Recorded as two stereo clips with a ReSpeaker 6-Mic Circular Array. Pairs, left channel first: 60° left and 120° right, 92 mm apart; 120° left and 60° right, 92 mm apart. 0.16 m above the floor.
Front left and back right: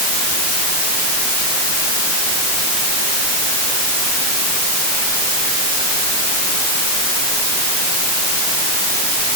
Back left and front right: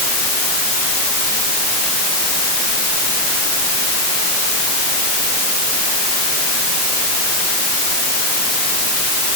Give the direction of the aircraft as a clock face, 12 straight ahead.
I don't hear an aircraft.